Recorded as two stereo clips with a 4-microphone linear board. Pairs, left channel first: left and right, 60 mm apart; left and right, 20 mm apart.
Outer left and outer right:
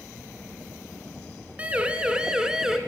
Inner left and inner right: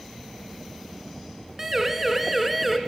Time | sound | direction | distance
1.6 | a siren | 20° right (ahead or behind) | 2.5 m